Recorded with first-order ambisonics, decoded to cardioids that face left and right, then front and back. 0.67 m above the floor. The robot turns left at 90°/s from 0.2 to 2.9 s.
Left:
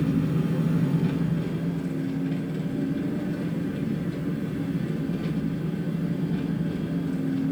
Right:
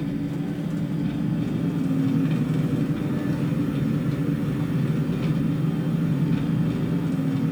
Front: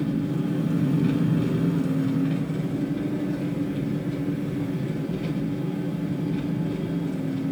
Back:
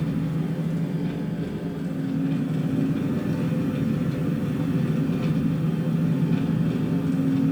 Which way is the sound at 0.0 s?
110° left.